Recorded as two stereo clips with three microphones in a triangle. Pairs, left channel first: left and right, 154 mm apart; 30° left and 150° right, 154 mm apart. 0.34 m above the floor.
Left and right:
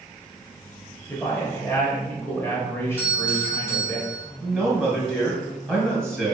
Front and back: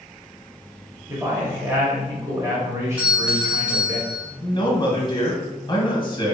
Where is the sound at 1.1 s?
155° left, 1.0 m.